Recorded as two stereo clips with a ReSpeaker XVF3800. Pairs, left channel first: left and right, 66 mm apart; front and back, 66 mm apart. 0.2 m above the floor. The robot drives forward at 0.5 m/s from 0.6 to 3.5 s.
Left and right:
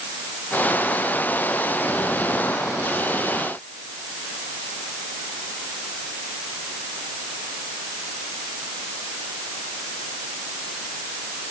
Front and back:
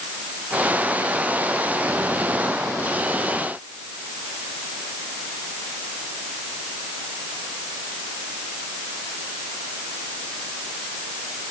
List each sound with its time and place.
Only background noise.